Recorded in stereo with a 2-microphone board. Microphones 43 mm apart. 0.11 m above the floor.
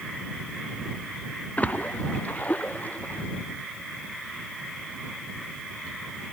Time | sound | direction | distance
1.6 | a splash | 40° left (ahead or behind) | ?